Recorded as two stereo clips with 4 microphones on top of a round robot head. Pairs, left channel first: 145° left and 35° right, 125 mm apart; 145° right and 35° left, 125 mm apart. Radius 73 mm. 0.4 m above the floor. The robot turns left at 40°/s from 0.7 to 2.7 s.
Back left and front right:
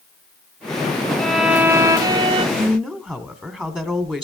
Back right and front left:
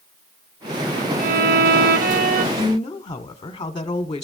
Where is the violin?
60° left, 0.6 m; by 2.5 s 10° left, 0.6 m.